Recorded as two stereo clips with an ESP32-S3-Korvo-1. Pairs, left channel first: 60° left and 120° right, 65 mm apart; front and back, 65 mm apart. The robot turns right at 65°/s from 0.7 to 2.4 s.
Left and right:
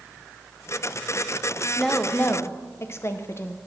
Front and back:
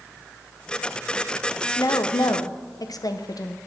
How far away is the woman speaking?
About 0.6 m.